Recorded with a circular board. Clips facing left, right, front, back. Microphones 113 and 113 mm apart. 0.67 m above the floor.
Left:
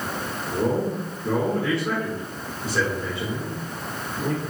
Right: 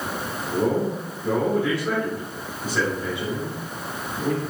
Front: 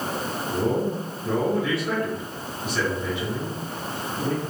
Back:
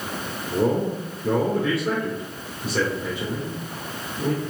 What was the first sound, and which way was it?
A man speaking, 160° right.